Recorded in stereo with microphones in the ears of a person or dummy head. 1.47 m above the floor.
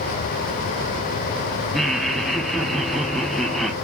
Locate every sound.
1.7 s laughter: 5° right (ahead or behind), 1.0 m